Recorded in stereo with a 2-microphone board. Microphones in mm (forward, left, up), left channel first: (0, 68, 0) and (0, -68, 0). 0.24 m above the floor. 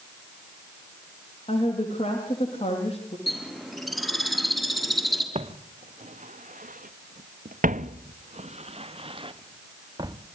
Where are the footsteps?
45° right (ahead or behind), 1.4 m; by 10.2 s 30° right (ahead or behind), 1.9 m.